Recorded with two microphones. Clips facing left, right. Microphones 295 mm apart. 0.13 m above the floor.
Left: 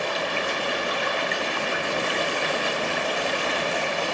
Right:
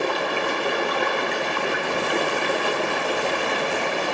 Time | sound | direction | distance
0.0 | running water | 65° right (ahead or behind) | 1.0 m